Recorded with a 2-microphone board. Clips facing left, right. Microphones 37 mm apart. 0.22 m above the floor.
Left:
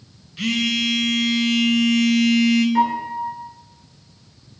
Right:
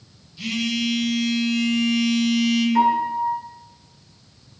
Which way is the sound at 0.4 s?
65° left (ahead or behind).